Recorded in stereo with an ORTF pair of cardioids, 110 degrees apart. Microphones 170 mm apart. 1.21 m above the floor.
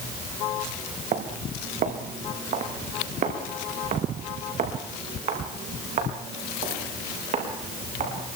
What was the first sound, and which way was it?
Footsteps, 50° right.